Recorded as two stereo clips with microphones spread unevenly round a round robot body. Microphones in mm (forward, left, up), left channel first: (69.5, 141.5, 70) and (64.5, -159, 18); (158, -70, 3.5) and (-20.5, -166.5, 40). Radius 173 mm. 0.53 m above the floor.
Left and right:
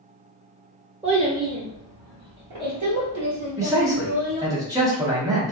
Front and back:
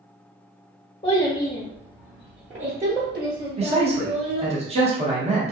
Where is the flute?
I don't hear a flute.